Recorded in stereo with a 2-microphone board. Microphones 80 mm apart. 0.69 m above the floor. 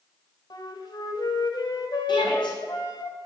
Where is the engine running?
I don't hear an engine running.